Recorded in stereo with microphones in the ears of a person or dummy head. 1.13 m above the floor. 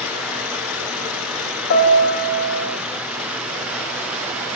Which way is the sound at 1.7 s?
60° left (ahead or behind).